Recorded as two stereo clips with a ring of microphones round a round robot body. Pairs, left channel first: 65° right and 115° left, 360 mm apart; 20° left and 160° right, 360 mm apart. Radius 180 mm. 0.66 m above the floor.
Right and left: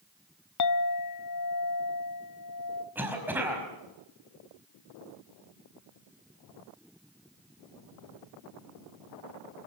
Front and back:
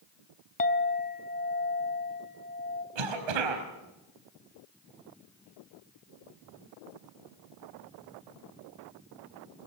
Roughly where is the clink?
Ahead right.